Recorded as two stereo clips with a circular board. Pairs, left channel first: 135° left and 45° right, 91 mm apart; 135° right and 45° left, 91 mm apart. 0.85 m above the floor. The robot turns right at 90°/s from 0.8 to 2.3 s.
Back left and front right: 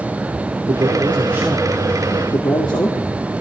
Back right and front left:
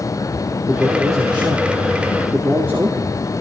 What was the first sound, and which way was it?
A man speaking, 30° right.